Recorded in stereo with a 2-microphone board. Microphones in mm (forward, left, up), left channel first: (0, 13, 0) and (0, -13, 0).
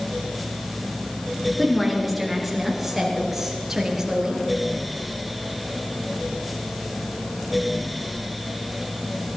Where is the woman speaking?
10° left (ahead or behind), 3.5 m; by 4.4 s 15° right (ahead or behind), 4.5 m.